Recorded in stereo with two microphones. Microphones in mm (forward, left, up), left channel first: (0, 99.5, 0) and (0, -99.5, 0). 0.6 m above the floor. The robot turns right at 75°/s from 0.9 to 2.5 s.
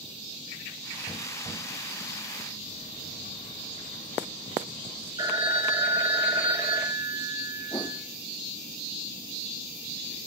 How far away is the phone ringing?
About 1.3 m.